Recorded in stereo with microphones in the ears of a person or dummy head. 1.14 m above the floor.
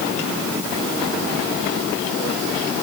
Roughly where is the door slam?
No door slam in this recording.